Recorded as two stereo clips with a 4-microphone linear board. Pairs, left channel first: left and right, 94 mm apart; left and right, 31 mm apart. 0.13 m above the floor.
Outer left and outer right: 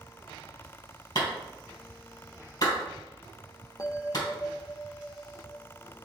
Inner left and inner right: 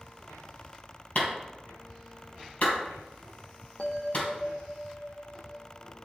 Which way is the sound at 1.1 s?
50° left (ahead or behind).